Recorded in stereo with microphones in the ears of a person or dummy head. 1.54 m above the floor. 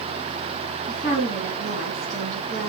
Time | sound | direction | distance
0.9 | a woman speaking | 20° right (ahead or behind) | 2.5 m